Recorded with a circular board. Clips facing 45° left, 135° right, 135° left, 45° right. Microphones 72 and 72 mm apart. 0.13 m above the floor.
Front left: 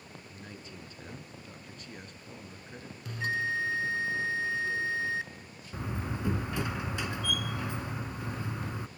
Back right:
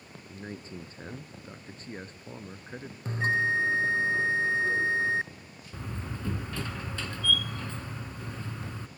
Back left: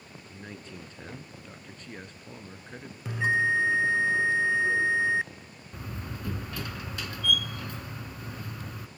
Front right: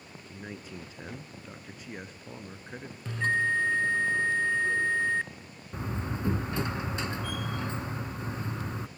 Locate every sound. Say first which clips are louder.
0.3 s a man speaking: back right 9 dB, front right 2 dB; 120° right, 1.3 m
3.0 s a bell: back right 5 dB, back left 2 dB; 155° right, 0.5 m
5.7 s a door slam: front left 3 dB, front right 5 dB; 15° right, 0.9 m